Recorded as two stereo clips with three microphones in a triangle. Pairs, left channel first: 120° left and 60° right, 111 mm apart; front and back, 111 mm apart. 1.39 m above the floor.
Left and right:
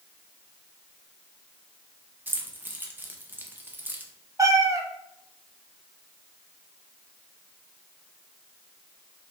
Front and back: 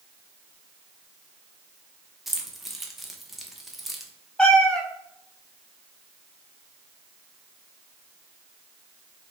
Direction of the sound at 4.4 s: 75° right.